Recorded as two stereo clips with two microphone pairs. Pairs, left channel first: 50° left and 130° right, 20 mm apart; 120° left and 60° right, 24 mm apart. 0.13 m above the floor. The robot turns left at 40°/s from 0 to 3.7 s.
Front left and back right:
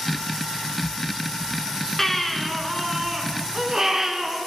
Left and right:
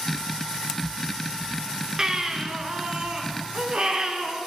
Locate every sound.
2.0 s a baby crying: 10° right, 0.9 m; by 4.4 s 80° right, 0.9 m